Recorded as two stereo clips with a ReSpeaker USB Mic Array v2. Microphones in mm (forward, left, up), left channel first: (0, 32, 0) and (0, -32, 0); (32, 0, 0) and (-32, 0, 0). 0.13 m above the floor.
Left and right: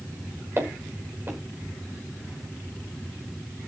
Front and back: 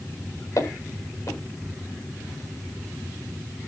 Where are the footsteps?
30° right, 10 m.